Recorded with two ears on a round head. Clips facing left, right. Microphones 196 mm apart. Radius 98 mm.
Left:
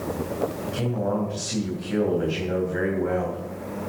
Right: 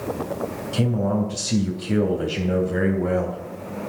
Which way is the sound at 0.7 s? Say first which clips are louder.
Right 6 dB; 50° right (ahead or behind).